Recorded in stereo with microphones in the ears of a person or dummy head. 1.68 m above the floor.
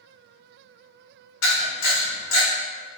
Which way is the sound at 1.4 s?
70° left (ahead or behind).